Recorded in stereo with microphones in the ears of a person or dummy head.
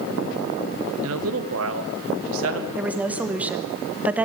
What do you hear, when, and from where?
1.0 s a man speaking: 70° right (ahead or behind), 1.6 m
2.8 s a woman speaking: 15° right (ahead or behind), 1.4 m